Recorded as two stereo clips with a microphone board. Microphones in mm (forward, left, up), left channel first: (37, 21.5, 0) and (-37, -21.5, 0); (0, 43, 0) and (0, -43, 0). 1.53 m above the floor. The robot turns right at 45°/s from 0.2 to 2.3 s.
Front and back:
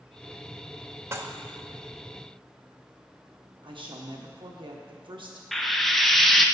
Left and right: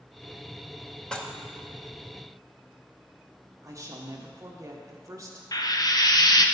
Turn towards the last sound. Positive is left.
turn(degrees=120)